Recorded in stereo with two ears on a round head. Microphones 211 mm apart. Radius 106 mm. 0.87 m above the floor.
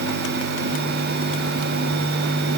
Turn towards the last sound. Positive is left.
No sound to turn to.